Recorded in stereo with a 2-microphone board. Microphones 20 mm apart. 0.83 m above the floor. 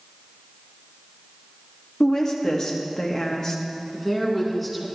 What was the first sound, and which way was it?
A woman speaking, 35° left (ahead or behind).